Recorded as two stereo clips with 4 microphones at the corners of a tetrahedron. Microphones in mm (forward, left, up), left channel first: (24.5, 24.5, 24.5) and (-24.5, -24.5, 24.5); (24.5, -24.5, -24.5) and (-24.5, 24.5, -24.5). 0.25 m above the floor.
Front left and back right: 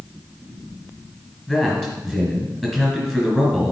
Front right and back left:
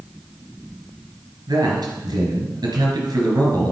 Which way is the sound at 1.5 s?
125° left.